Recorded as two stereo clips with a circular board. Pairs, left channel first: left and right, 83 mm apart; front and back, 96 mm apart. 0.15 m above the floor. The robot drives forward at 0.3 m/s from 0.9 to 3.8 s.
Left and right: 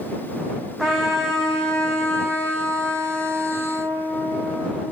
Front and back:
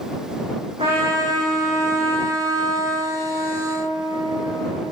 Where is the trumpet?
175° left, 4.5 m.